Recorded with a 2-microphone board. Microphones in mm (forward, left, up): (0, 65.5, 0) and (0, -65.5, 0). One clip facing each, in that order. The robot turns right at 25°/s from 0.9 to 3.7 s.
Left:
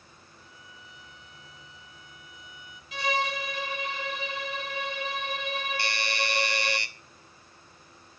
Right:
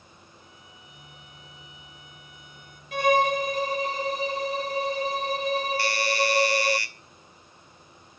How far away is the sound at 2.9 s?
About 0.6 m.